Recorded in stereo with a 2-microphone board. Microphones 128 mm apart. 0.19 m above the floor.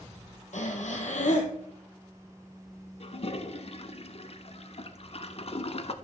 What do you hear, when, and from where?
0.5 s breathing: 70° left (ahead or behind), 1.4 m
3.0 s a toilet flushing: 50° left (ahead or behind), 0.6 m